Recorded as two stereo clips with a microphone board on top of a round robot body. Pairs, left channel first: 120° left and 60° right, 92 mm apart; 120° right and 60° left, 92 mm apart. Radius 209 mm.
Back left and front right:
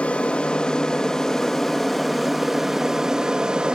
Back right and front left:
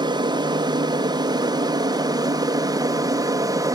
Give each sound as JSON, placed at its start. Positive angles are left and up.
{"t": 0.0, "sound": "an aircraft", "azimuth_deg": 45}